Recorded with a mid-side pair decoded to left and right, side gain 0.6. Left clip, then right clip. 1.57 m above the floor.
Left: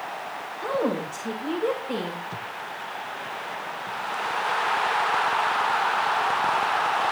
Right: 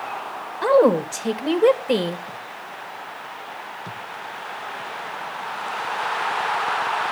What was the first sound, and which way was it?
A woman speaking, 50° right.